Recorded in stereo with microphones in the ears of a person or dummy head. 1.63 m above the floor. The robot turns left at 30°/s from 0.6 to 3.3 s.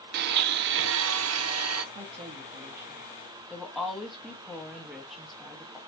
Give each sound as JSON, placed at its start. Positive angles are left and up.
{"t": 0.1, "sound": "a blender", "azimuth_deg": -60, "distance_m": 0.7}
{"t": 1.9, "sound": "a woman speaking", "azimuth_deg": -140, "distance_m": 1.0}